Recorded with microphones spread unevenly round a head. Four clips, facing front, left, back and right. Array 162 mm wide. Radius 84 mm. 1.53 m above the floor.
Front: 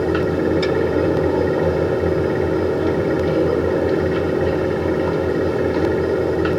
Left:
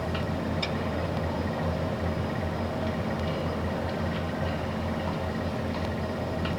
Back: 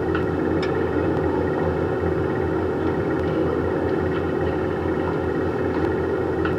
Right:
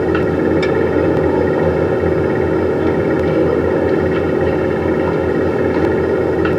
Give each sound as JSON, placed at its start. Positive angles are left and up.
{"t": 0.0, "sound": "a fan", "azimuth_deg": -80}